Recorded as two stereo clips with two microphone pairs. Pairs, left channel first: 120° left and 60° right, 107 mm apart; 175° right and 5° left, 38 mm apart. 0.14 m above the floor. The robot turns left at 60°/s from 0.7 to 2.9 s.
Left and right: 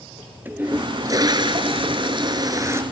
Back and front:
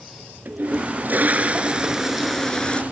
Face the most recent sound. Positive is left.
turn(degrees=-125)